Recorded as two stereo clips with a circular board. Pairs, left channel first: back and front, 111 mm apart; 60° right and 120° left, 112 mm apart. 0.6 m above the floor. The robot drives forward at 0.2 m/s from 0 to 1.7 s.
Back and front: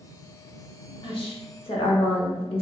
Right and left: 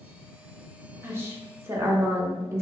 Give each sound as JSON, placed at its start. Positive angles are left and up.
{"t": 1.0, "sound": "a woman speaking", "azimuth_deg": -175, "distance_m": 0.8}